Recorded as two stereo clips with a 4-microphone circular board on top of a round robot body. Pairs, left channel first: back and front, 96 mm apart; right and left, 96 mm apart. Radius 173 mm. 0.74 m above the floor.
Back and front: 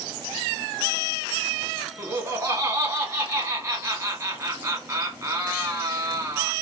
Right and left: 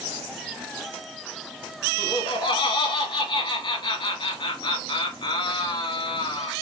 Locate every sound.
2.0 s laughter: 55° right, 1.6 m